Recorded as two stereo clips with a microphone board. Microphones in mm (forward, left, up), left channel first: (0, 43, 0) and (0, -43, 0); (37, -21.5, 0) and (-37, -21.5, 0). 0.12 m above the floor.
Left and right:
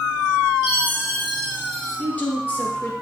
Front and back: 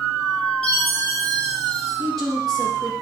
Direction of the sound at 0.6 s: 85° left.